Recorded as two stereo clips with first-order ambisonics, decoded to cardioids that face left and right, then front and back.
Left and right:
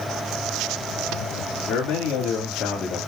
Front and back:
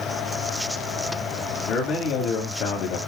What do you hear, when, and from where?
1.7 s a man speaking: 50° left, 2.5 m; by 3.0 s 25° left, 2 m